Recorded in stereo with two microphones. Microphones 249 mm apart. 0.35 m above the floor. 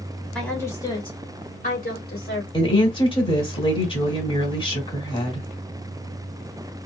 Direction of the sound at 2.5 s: 20° left (ahead or behind).